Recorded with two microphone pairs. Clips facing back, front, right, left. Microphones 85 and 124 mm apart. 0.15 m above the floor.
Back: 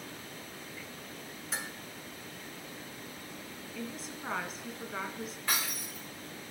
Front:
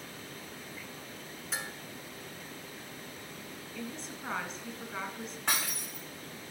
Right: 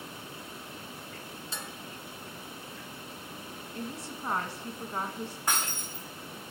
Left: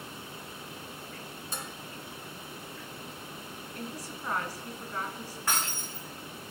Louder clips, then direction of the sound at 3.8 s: Back 1 dB, right 2 dB; 100° right.